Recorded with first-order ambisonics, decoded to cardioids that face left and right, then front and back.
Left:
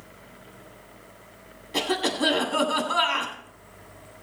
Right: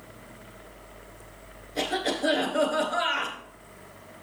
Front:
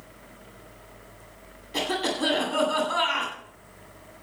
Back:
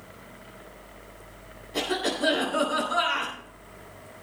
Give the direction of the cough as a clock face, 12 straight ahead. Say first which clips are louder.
Left 3 dB, front 1 dB; 10 o'clock.